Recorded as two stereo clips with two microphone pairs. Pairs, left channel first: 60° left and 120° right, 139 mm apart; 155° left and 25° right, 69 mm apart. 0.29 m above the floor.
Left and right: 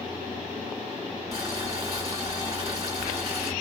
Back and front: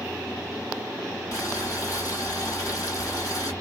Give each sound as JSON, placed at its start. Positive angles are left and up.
{"t": 1.3, "sound": "boiling", "azimuth_deg": 175, "distance_m": 1.9}